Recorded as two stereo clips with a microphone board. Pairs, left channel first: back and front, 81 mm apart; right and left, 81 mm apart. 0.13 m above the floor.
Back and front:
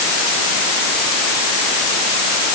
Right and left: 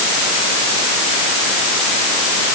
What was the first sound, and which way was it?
Only background noise.